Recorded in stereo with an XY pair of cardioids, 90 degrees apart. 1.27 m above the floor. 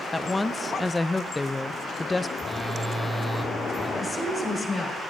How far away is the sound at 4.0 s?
About 5 m.